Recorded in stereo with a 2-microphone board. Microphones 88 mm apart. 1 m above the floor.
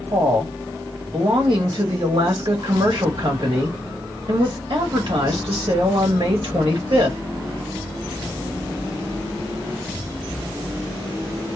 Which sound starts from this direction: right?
A woman speaking, at 0.1 s.